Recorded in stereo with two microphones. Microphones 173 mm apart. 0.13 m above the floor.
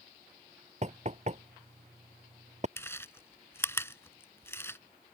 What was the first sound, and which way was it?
Knocking, 45° right (ahead or behind).